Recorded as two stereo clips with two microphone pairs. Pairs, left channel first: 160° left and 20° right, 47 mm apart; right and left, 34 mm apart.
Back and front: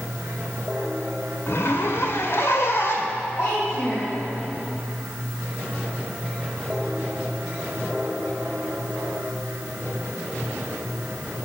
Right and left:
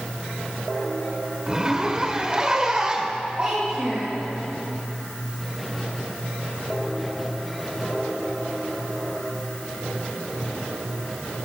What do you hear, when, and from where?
1.5 s a zipper: 155° left, 1.3 m
3.4 s a child speaking: 140° left, 4 m